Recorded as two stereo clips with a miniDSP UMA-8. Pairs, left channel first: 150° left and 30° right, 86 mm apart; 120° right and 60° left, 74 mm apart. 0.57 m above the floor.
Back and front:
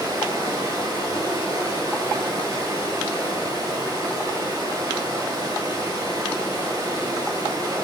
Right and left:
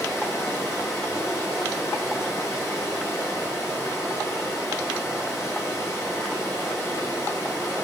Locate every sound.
0.0 s running water: 70° right, 2.5 m